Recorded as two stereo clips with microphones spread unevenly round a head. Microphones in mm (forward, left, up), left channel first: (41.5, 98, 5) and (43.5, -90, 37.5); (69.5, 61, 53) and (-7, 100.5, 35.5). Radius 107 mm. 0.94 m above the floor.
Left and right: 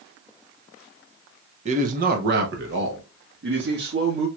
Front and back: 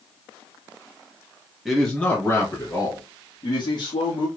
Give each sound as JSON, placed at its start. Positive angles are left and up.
{"t": 1.6, "sound": "a man speaking", "azimuth_deg": -140, "distance_m": 0.7}